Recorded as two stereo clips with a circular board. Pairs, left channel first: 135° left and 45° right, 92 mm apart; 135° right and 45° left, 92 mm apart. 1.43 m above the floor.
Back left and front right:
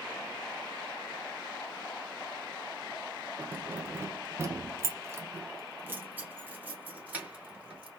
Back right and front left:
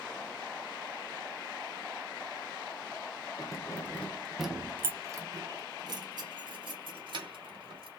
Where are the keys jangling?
110° right, 0.8 m; by 7.9 s 30° left, 2 m.